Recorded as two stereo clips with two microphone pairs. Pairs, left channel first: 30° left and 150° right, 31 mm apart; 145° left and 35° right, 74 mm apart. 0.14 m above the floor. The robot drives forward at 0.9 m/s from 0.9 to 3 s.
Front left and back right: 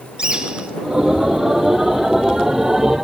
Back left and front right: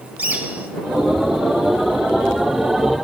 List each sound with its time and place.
0.2 s a bird: 100° right, 1.7 m